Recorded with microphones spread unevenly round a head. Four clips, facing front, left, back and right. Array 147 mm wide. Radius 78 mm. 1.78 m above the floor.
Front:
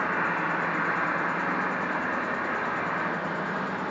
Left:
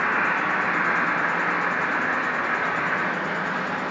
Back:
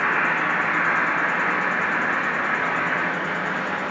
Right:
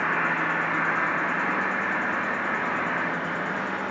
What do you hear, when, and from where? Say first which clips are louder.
0.0 s an insect: left 2 dB, back 5 dB; 145° left, 1.4 m